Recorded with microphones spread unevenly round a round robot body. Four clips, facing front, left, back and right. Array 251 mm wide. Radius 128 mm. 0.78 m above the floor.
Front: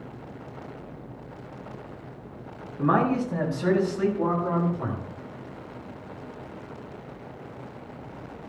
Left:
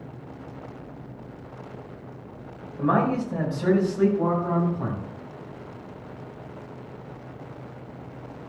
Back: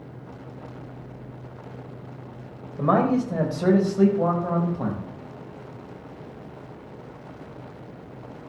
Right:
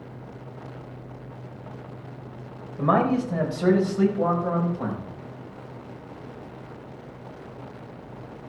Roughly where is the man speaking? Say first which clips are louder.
Right 1 dB, back 2 dB; behind.